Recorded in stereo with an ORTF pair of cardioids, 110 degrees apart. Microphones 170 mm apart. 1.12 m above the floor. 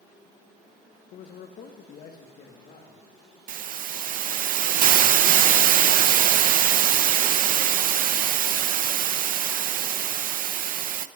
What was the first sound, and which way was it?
A man speaking, 60° left.